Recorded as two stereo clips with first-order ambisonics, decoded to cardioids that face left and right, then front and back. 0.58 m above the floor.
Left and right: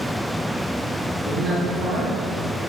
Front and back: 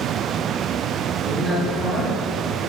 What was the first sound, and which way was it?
A man speaking, 80° right.